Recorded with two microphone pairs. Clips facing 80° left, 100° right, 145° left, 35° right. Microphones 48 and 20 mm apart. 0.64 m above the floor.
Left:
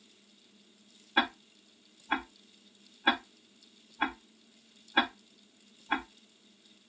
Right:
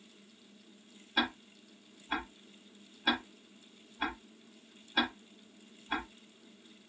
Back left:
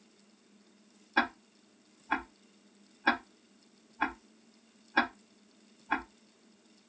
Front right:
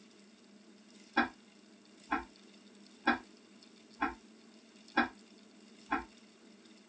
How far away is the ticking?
About 0.6 m.